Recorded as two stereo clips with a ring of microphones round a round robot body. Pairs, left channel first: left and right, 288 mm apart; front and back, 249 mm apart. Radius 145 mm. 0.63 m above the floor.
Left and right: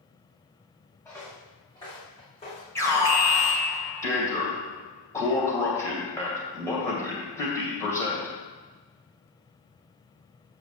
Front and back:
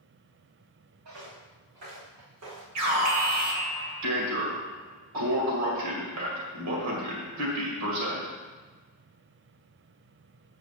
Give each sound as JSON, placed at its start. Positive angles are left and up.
{"t": 1.1, "sound": "footsteps", "azimuth_deg": 170, "distance_m": 3.5}
{"t": 2.8, "sound": "an alarm", "azimuth_deg": 170, "distance_m": 2.0}